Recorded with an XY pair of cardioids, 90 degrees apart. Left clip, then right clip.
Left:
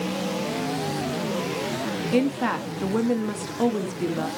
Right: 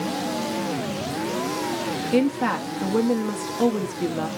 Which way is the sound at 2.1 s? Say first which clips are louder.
Right 2 dB; straight ahead.